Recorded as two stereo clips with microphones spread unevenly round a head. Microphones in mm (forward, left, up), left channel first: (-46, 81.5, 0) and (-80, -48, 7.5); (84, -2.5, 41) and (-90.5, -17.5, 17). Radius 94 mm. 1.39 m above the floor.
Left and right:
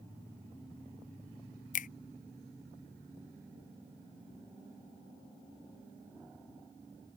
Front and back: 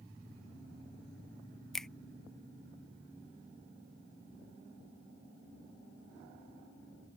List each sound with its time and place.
1.7 s a finger snap: 95° left